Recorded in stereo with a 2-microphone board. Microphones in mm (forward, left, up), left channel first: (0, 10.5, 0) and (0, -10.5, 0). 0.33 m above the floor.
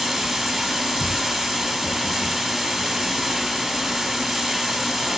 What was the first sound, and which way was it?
Running water, 5° right (ahead or behind).